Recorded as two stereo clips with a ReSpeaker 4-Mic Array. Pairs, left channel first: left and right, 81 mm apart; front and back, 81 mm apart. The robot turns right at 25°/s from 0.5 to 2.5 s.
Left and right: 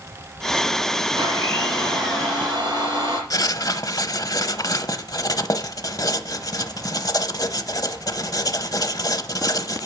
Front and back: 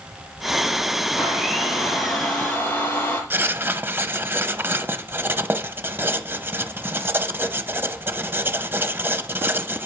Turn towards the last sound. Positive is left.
turn(degrees=120)